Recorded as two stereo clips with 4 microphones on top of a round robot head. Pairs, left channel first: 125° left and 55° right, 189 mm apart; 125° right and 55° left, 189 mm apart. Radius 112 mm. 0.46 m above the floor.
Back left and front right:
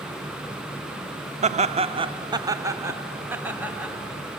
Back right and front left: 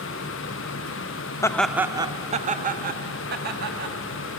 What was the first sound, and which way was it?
Laughter, 65° right.